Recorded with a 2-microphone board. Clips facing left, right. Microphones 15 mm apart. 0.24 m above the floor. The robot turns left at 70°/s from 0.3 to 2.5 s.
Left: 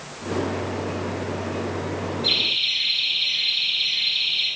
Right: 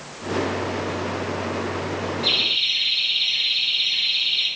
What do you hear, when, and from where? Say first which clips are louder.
2.2 s laughter: right 1 dB; 65° right (ahead or behind), 3.5 m; by 4.5 s 70° right (ahead or behind), 3.5 m